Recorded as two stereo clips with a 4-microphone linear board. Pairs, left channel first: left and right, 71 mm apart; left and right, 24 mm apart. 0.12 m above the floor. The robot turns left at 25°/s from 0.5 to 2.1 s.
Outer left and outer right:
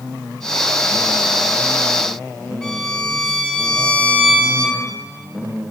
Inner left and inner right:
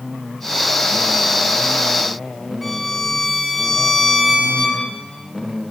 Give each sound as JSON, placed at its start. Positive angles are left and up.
{"t": 2.6, "sound": "a violin", "side_deg": 10, "distance_m": 4.5}